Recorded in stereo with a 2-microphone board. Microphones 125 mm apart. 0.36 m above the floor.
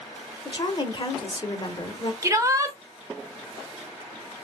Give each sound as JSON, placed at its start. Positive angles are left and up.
{"t": 0.5, "sound": "a woman speaking", "side_deg": 40, "distance_m": 0.9}
{"t": 2.2, "sound": "a shout", "side_deg": -25, "distance_m": 0.9}